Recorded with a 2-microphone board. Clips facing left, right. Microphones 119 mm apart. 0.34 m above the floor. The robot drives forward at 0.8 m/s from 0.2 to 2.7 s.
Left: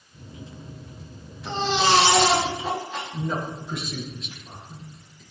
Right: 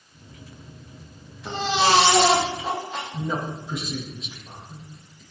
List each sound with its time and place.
1.4 s a baby crying: 10° right (ahead or behind), 7.5 m; by 3.0 s 5° right (ahead or behind), 8.5 m
3.1 s a man speaking: 5° right (ahead or behind), 7.5 m